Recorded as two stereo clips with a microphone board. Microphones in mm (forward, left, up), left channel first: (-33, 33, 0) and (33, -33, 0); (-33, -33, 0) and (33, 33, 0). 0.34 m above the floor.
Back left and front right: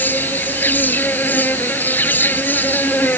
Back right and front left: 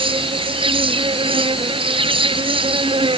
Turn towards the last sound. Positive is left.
turn(degrees=65)